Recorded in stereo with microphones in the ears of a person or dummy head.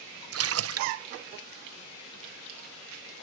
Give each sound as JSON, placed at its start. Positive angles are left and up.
{"t": 0.3, "sound": "a splash", "side_deg": -75}